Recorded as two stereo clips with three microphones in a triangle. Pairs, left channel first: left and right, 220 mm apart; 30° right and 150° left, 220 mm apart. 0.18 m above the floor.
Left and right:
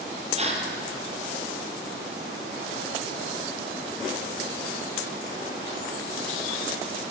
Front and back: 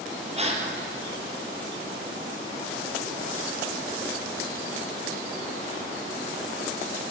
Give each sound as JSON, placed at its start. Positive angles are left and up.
{"t": 0.4, "sound": "a gasp", "azimuth_deg": -150, "distance_m": 3.5}